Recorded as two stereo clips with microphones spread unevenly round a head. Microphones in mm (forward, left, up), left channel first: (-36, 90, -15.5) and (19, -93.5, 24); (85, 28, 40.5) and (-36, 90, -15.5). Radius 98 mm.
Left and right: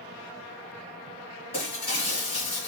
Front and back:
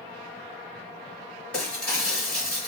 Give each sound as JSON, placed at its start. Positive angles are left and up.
{"t": 1.5, "sound": "breaking glass", "azimuth_deg": 40, "distance_m": 2.5}